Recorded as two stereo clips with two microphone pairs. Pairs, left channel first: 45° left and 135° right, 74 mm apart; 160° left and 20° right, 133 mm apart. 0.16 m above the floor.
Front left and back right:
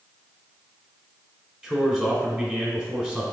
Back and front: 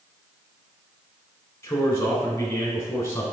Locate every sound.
1.6 s a man speaking: 165° left, 1.1 m